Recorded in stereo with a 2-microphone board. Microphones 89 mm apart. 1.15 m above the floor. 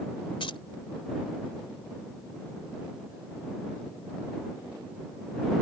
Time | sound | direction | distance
0.4 | keys jangling | 75° left (ahead or behind) | ?